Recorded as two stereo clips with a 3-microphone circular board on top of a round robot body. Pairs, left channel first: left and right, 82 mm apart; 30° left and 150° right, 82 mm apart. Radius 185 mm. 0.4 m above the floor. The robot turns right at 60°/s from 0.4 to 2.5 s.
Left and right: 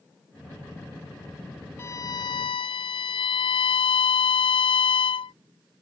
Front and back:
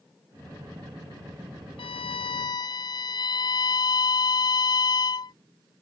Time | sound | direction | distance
1.8 | a violin | 25° left | ?